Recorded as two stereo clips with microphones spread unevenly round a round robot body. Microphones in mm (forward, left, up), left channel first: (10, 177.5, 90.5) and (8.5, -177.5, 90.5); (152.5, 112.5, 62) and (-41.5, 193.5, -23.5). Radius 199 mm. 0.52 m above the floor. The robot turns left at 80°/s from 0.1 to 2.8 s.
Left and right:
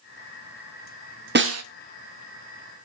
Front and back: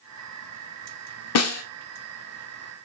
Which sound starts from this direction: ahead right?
A snare drum, at 1.4 s.